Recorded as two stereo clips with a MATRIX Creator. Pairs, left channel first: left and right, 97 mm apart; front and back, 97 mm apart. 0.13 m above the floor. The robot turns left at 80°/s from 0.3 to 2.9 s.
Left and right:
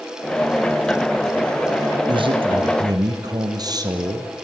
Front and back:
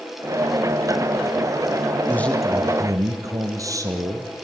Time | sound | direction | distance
2.1 | a man speaking | 65° right | 3 m